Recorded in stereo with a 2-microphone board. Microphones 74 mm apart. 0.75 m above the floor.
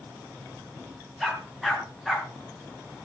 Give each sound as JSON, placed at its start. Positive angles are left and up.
{"t": 1.2, "sound": "a dog barking", "side_deg": 0, "distance_m": 4.0}